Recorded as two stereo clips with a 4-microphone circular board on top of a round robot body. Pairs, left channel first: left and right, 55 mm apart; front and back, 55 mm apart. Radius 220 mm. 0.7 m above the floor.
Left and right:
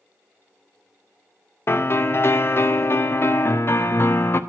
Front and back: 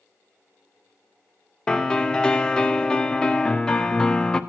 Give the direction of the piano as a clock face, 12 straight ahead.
10 o'clock.